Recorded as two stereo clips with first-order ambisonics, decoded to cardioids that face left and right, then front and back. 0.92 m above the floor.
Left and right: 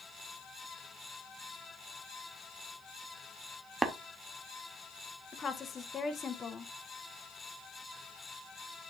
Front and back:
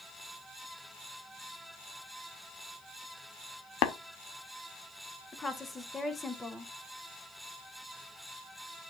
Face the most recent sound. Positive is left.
turn(degrees=60)